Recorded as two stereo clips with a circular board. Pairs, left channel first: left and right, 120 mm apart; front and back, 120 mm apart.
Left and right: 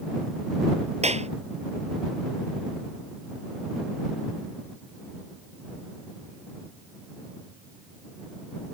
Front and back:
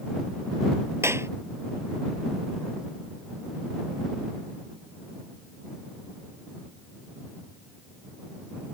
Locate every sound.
1.0 s a clap: 110° right